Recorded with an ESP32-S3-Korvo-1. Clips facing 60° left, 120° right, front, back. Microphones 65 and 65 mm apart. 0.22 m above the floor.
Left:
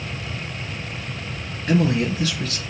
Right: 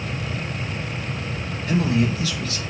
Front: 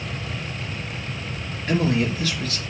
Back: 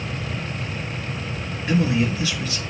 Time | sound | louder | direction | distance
1.7 | a man speaking | left 1 dB, back 1 dB | 100° left | 4 m